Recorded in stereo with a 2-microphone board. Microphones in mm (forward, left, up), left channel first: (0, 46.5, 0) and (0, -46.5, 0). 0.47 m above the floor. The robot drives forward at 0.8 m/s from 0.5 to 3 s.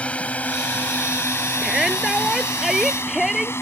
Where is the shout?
5° right (ahead or behind).